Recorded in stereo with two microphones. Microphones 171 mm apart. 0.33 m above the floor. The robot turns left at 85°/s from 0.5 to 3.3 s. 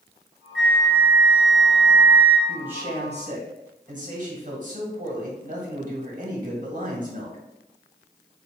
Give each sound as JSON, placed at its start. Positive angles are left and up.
{"t": 0.6, "sound": "a flute", "azimuth_deg": 180, "distance_m": 0.7}
{"t": 2.5, "sound": "a man speaking", "azimuth_deg": 5, "distance_m": 1.4}